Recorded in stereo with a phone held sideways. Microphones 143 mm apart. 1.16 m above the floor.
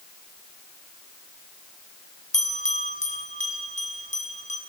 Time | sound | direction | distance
2.3 | a bell | 50° left (ahead or behind) | 6.5 m